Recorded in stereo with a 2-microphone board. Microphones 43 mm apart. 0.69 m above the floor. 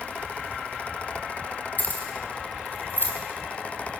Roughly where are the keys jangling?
Left.